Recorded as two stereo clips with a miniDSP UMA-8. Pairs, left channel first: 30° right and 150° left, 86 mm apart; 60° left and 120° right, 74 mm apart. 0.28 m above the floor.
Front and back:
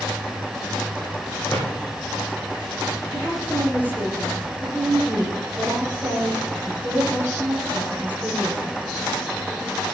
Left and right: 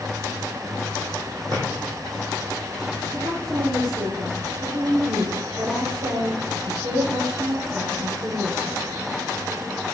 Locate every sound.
1.5 s a drawer: 110° right, 7.5 m
3.1 s a woman speaking: 140° right, 8 m